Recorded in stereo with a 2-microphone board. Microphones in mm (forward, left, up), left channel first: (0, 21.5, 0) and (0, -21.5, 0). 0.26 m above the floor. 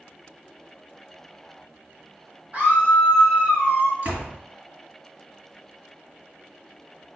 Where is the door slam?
45° right (ahead or behind), 2.5 m.